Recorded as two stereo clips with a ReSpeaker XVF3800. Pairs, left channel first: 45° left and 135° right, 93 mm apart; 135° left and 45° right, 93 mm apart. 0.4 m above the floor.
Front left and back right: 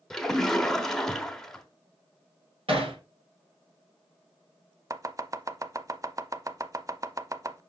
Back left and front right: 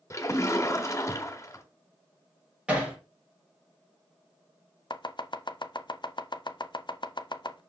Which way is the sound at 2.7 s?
125° right.